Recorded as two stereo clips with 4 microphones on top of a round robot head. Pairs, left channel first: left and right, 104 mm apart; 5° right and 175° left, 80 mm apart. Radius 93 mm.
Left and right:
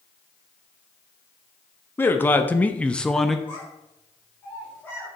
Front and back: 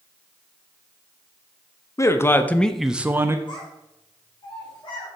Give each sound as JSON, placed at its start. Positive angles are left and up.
{"t": 2.0, "sound": "a man speaking", "azimuth_deg": 25, "distance_m": 1.0}
{"t": 3.5, "sound": "a child speaking", "azimuth_deg": 15, "distance_m": 3.0}